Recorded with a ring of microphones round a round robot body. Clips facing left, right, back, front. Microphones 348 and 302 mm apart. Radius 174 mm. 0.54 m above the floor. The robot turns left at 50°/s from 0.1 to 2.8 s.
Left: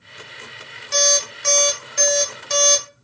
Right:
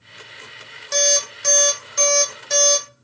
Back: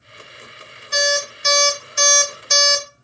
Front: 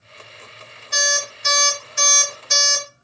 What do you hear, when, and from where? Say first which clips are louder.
0.9 s an alarm clock: even, back 6 dB; 110° right, 0.8 m; by 2.9 s 155° left, 0.8 m